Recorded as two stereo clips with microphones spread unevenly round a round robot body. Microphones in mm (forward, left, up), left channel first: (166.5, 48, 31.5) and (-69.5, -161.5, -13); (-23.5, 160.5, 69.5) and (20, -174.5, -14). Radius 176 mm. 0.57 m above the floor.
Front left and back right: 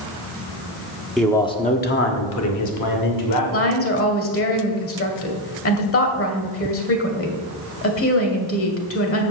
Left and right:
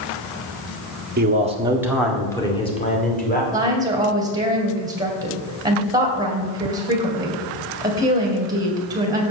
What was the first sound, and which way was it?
A man speaking, 55° right.